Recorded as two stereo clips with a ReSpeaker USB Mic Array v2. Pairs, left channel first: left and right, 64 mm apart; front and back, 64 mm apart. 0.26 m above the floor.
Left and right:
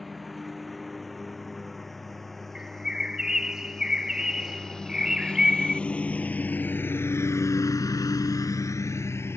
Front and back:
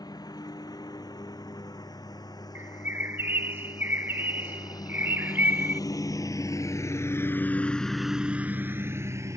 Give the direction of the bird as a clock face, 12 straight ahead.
5 o'clock.